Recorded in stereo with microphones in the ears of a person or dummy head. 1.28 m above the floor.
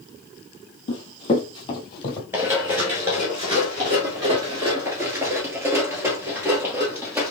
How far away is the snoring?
No snoring in this recording.